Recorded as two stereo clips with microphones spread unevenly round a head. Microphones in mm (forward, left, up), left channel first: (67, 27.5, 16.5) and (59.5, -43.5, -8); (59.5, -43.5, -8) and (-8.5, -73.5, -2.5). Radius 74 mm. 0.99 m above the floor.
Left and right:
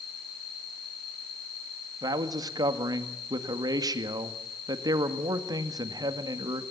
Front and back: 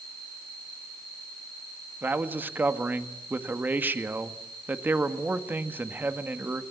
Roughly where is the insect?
Left.